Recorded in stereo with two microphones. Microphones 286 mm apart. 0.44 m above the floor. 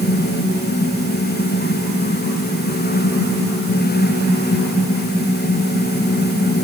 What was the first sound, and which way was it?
Only background noise.